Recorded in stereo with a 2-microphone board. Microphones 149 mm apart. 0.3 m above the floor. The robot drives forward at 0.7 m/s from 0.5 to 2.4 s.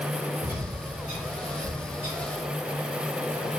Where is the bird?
50° right (ahead or behind), 3 m; by 2.4 s 35° right (ahead or behind), 4 m.